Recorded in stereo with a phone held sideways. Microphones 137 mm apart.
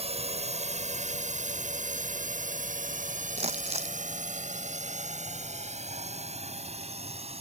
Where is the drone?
50° right (ahead or behind); by 7.4 s 45° right (ahead or behind).